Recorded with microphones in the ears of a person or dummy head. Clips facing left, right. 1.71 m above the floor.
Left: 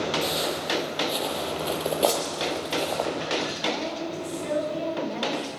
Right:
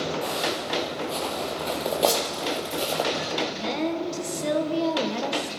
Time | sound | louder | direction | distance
0.2 | footsteps | even | 25° left (ahead or behind) | 3.5 m
2.0 | a whoosh | right 1 dB | 5° right (ahead or behind) | 4 m
3.5 | a woman speaking | right 3 dB | 55° right (ahead or behind) | 2.0 m